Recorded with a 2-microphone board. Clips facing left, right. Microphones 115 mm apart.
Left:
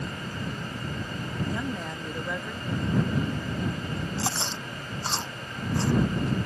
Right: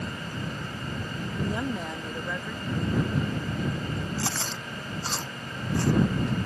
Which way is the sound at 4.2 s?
25° left (ahead or behind).